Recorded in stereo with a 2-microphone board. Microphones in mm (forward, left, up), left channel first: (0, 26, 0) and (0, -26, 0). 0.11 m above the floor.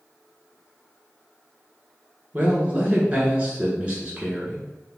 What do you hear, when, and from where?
2.3 s a man speaking: 20° right (ahead or behind), 1.1 m